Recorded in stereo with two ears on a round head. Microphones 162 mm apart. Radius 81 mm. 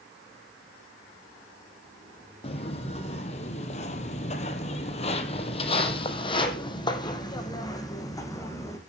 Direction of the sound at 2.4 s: 35° left (ahead or behind).